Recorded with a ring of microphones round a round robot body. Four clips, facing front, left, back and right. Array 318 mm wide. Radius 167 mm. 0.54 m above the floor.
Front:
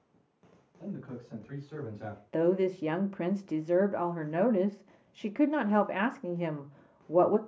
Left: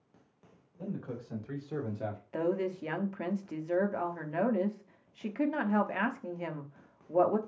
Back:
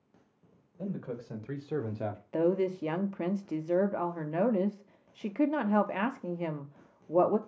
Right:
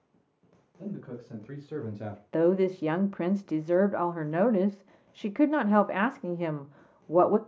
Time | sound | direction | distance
0.8 | a man speaking | straight behind | 3 m
2.3 | a woman speaking | 85° right | 0.8 m